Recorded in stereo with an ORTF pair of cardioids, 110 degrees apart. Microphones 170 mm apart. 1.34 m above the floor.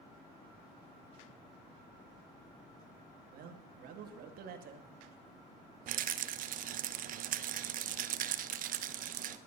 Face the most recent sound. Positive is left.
turn(degrees=-60)